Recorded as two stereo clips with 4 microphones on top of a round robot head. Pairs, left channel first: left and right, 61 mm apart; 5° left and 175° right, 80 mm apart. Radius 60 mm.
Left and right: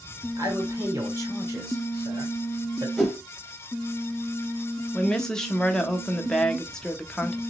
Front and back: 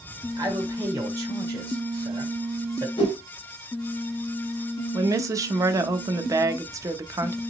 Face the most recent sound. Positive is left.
turn(degrees=165)